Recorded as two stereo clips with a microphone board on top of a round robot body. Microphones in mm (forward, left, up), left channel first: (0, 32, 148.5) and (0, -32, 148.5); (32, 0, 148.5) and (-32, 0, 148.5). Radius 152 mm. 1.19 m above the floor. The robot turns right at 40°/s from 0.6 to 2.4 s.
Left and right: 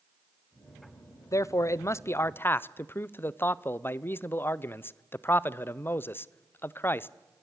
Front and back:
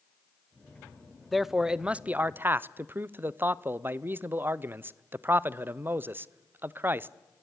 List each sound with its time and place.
1.3 s a man speaking: 90° left, 0.8 m; by 7.1 s 135° left, 0.8 m